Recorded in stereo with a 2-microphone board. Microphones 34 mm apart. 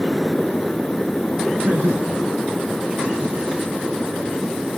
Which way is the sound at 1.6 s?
70° right (ahead or behind).